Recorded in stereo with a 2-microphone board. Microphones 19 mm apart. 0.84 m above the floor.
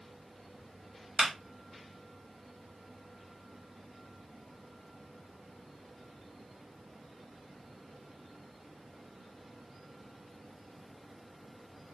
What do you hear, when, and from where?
1.2 s a clap: 10° right (ahead or behind), 1.9 m